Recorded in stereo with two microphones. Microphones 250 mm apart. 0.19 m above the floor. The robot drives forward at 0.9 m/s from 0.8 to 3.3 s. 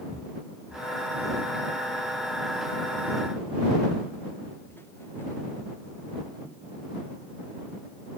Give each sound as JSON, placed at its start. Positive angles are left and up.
{"t": 0.1, "sound": "footsteps", "side_deg": 10}